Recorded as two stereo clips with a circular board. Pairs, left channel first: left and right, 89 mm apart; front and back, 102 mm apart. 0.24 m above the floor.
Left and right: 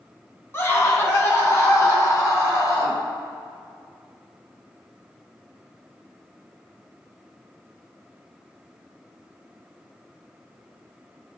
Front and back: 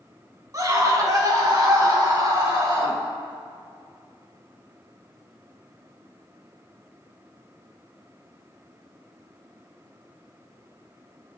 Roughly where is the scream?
Behind left.